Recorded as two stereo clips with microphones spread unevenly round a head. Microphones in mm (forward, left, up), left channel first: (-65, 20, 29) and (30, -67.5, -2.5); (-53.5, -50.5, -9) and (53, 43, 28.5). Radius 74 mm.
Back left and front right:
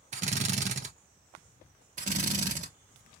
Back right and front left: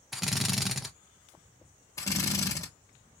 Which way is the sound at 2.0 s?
60° right.